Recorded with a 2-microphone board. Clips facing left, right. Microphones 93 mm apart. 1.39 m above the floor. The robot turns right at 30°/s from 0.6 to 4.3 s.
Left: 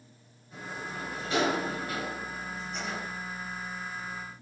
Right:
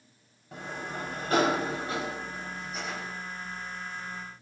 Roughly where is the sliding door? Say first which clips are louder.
Right 2 dB; right.